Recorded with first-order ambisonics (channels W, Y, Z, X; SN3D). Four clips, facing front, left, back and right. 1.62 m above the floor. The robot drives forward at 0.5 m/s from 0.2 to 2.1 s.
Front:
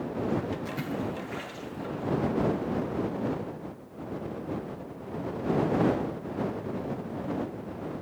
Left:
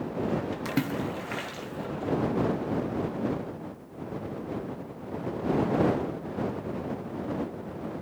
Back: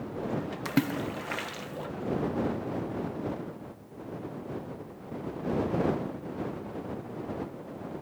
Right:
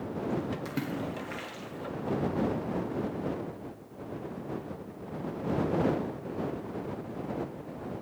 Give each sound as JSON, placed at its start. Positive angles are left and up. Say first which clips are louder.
{"t": 0.7, "sound": "a splash", "louder": "left 5 dB, back 3 dB", "azimuth_deg": 155, "distance_m": 1.2}